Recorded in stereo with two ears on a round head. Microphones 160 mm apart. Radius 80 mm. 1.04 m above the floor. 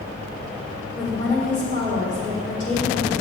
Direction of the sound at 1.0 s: 45° left (ahead or behind).